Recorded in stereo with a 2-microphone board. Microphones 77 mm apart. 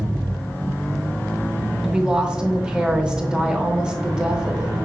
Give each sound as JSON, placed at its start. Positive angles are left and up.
{"t": 1.8, "sound": "a woman speaking", "side_deg": -10, "distance_m": 0.7}